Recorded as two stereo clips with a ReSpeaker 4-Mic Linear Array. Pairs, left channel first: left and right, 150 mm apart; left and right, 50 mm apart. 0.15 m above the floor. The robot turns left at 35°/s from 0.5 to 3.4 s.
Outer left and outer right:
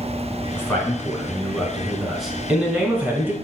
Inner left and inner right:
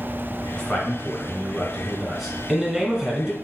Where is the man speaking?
20° left (ahead or behind), 1.3 m; by 3.3 s 15° right (ahead or behind), 1.3 m.